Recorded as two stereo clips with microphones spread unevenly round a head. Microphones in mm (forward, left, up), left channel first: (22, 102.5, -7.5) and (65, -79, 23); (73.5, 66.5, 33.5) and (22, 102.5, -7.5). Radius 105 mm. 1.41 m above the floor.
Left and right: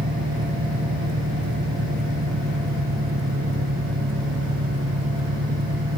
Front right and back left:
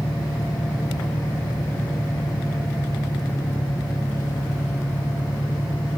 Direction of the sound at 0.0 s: 85° right.